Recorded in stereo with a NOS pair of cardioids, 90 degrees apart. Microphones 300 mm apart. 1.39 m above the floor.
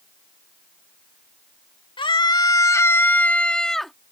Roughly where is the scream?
Ahead.